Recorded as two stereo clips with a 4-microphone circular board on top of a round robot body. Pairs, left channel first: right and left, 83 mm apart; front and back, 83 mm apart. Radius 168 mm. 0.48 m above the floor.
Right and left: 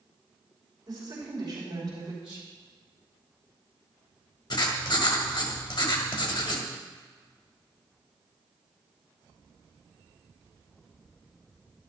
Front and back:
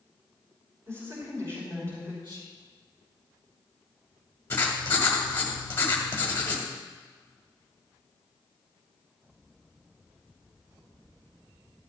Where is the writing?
65° right, 1.6 m.